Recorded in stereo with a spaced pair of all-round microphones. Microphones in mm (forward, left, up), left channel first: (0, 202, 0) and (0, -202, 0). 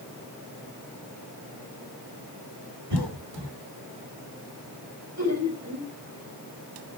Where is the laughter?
40° right (ahead or behind), 6 m.